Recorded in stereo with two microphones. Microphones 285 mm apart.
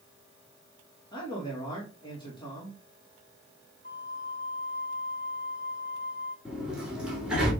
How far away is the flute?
About 1.3 m.